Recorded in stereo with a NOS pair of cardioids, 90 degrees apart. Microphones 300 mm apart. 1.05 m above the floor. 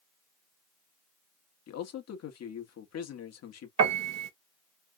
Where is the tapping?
I don't hear tapping.